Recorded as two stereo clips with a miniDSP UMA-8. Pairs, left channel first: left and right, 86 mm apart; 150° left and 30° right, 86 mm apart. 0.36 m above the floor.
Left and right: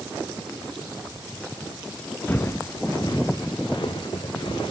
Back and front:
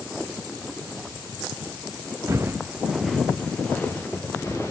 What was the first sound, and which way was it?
Footsteps, 25° left.